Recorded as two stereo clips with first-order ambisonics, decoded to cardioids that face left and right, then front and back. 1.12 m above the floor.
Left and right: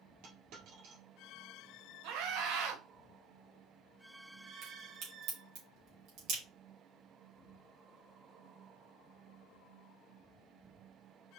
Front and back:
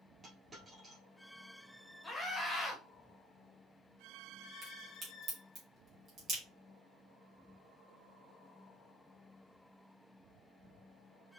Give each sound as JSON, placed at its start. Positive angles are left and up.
{"t": 0.2, "sound": "a dropped coin", "azimuth_deg": -110, "distance_m": 2.5}
{"t": 2.0, "sound": "a scream", "azimuth_deg": -80, "distance_m": 1.7}
{"t": 4.6, "sound": "a crack", "azimuth_deg": -125, "distance_m": 3.0}